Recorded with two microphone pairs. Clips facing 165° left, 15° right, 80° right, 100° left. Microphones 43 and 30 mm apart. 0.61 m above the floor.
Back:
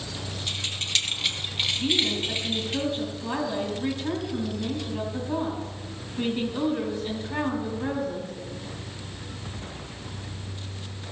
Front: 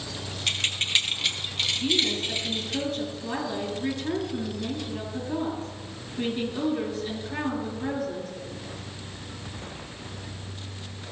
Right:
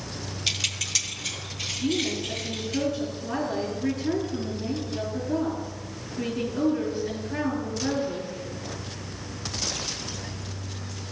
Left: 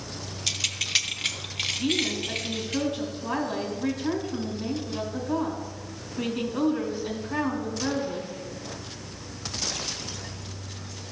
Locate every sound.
0.5 s keys jangling: 5° right, 0.8 m; by 2.8 s 105° left, 3 m
1.8 s a woman speaking: 105° left, 4 m